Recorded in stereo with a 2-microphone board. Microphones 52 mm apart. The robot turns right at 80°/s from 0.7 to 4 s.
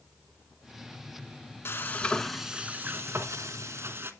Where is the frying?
125° left, 1.1 m; by 4.1 s 50° right, 1.1 m.